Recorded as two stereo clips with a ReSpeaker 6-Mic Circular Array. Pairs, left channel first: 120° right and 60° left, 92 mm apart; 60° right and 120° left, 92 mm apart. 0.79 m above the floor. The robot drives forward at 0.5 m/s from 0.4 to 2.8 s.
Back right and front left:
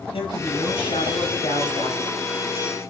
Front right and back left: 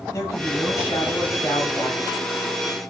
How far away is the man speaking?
About 4.5 m.